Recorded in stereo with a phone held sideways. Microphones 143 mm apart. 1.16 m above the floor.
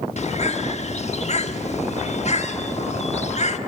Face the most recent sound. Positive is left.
turn(degrees=50)  # may be behind; listen again after turning